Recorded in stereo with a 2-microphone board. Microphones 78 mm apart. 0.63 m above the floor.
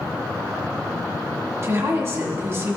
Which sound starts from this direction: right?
A woman speaking, at 1.6 s.